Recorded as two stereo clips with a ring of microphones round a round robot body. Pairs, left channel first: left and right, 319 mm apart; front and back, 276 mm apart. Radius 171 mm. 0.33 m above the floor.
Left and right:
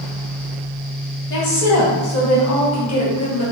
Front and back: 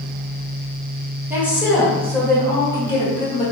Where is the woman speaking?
100° left, 1.9 m; by 3.4 s 65° left, 2.5 m.